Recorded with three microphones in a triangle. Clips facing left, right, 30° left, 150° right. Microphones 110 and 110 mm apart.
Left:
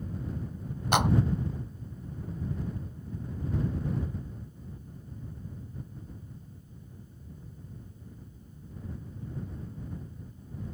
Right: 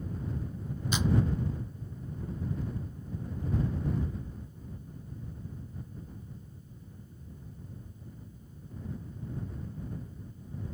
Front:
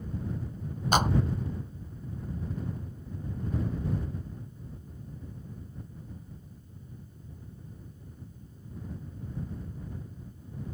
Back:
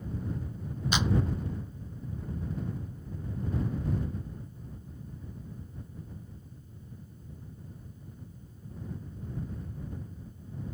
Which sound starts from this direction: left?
A clap, at 0.9 s.